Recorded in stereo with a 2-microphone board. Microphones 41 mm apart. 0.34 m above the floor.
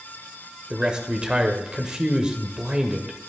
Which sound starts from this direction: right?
A man speaking, at 0.7 s.